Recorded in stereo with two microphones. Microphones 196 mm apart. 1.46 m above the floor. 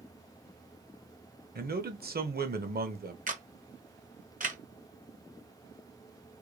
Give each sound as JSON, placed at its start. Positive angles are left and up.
{"t": 1.6, "sound": "a man speaking", "side_deg": -50, "distance_m": 0.9}
{"t": 3.3, "sound": "a camera shutter", "side_deg": -40, "distance_m": 0.9}